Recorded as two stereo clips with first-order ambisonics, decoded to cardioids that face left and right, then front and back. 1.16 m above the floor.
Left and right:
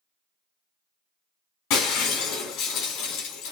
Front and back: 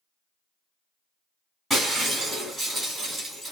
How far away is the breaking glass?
About 3 m.